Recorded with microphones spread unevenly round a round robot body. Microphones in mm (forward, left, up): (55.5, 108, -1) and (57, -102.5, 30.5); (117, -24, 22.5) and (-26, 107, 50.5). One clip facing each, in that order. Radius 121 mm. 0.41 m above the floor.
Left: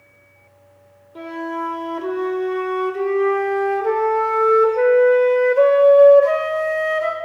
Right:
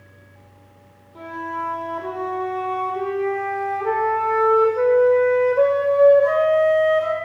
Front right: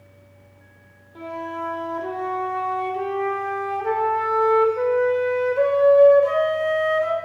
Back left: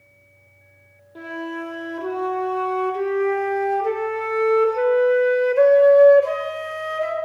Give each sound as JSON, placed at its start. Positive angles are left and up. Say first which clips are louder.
{"t": 1.1, "sound": "a flute", "louder": "left 6 dB, back left 2 dB", "azimuth_deg": 80, "distance_m": 1.4}